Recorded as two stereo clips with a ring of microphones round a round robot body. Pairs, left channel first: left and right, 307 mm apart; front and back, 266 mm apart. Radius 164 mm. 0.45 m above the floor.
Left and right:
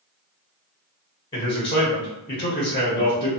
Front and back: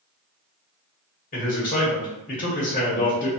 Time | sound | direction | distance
1.3 | a man speaking | 30° left | 1.0 m